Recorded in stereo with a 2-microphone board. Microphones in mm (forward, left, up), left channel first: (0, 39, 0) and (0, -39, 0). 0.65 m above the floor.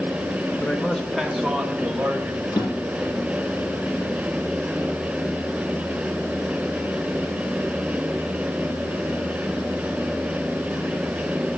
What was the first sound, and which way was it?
A man speaking, 20° left (ahead or behind).